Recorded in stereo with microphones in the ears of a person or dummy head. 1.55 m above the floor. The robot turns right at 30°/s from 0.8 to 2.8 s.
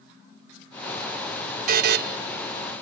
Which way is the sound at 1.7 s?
55° right (ahead or behind).